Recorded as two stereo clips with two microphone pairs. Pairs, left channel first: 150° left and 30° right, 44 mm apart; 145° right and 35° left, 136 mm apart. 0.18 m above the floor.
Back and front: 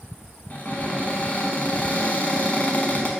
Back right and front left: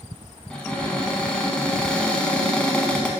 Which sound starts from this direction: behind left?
A cupboard door, at 0.5 s.